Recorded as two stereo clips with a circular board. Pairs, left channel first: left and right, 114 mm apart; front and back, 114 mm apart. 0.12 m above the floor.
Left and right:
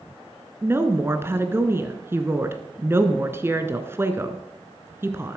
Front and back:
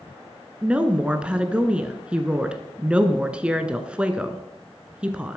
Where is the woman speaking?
115° right, 1.1 m.